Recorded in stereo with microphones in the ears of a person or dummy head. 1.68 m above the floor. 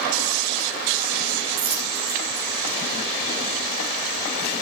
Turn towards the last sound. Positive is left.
turn(degrees=-50)  # may be behind; listen again after turning